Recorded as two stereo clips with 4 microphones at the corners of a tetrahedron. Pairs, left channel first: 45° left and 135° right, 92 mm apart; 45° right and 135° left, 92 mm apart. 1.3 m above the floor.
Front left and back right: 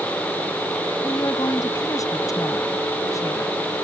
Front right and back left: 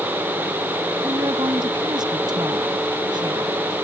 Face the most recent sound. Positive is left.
turn(degrees=100)